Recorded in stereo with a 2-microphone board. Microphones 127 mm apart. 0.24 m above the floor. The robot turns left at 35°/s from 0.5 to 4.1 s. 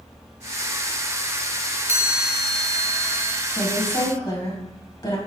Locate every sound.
1.9 s a chime: 160° right, 0.7 m; by 3.4 s 150° left, 0.7 m
3.5 s a woman speaking: 40° left (ahead or behind), 1.8 m; by 5.2 s 35° left (ahead or behind), 1.8 m